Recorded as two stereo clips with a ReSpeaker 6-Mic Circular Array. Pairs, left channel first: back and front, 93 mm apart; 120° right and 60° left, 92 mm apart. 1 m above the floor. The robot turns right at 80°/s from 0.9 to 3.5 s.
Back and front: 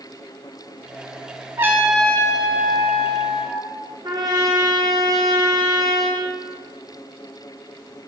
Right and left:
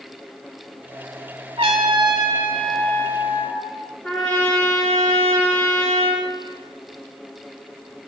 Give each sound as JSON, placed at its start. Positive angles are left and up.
{"t": 1.6, "sound": "a trumpet", "azimuth_deg": 60, "distance_m": 3.0}
{"t": 4.0, "sound": "a trumpet", "azimuth_deg": -45, "distance_m": 3.5}